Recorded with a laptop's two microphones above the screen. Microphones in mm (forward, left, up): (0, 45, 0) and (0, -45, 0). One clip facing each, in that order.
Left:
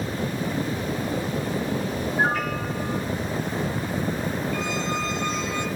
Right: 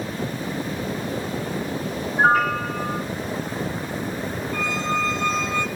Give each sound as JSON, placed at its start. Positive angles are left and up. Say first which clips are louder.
{"t": 2.2, "sound": "a piano", "louder": "right 8 dB", "side_deg": -50, "distance_m": 6.5}
{"t": 4.5, "sound": "a squeak", "louder": "right 2 dB", "side_deg": -45, "distance_m": 1.0}